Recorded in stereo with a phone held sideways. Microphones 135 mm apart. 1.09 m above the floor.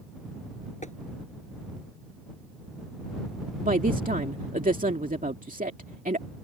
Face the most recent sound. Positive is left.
turn(degrees=-85)